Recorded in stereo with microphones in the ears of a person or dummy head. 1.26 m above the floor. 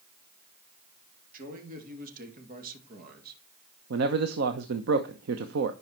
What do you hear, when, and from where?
1.3 s a man speaking: 45° right (ahead or behind), 3 m; by 3.4 s 50° right (ahead or behind), 1.7 m
3.9 s a man speaking: 70° right (ahead or behind), 0.8 m